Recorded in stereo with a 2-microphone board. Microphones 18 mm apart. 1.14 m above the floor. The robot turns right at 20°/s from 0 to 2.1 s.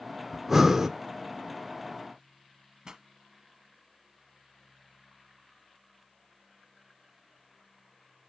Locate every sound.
0.3 s breathing: 15° right (ahead or behind), 0.5 m; by 0.9 s 20° right (ahead or behind), 0.5 m
2.9 s a pop: 40° right (ahead or behind), 1.0 m